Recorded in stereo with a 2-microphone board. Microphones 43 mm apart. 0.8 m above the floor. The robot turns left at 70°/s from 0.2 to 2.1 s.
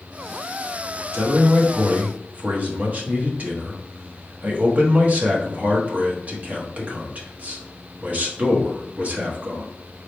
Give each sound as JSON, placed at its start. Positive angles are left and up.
{"t": 1.1, "sound": "a man speaking", "azimuth_deg": -65, "distance_m": 1.3}